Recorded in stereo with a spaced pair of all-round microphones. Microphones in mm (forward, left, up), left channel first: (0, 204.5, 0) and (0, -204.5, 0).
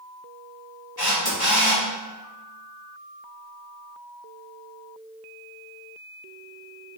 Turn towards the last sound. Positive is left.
turn(degrees=65)  # may be behind; listen again after turning